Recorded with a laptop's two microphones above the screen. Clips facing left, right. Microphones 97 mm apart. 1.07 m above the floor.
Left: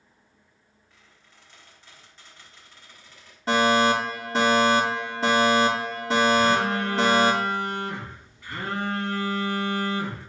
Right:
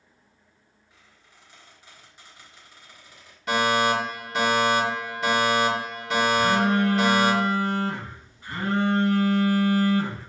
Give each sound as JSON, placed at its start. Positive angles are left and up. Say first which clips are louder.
{"t": 0.9, "sound": "a squeak", "louder": "right 1 dB", "side_deg": -15, "distance_m": 2.0}
{"t": 3.5, "sound": "a fire alarm", "louder": "left 2 dB", "side_deg": 35, "distance_m": 2.5}
{"t": 6.3, "sound": "a phone buzzing", "louder": "even", "side_deg": -30, "distance_m": 3.5}